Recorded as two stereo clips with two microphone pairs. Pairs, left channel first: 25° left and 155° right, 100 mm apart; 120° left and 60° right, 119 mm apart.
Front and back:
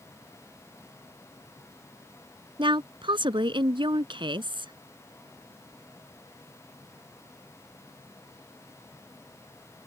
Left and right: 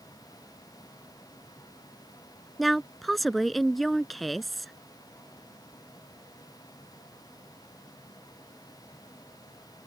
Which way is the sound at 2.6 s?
150° right.